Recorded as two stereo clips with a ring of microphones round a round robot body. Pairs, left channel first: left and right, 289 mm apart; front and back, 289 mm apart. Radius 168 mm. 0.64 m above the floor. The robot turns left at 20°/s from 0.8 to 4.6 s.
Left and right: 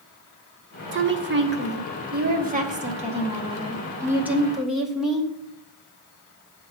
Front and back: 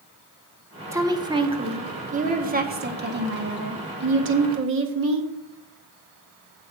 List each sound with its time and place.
0.9 s a woman speaking: 105° right, 1.1 m; by 5.3 s straight behind, 1.1 m